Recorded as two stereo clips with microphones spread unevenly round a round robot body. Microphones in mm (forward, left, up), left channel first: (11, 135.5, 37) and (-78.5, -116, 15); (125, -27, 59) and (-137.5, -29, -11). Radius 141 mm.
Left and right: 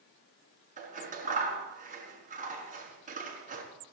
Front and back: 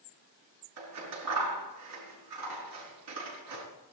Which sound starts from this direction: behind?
Scissors, at 0.8 s.